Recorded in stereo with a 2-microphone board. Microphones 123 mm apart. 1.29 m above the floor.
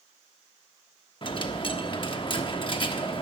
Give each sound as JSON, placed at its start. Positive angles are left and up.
{"t": 1.2, "sound": "a dropped coin", "side_deg": 45, "distance_m": 1.0}